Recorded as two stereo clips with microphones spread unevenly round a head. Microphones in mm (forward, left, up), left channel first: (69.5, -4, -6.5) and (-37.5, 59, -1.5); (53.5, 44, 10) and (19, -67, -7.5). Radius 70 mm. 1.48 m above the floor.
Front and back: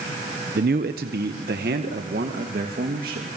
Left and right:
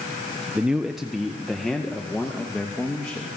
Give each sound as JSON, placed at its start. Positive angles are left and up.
{"t": 0.6, "sound": "a man speaking", "azimuth_deg": 170, "distance_m": 1.1}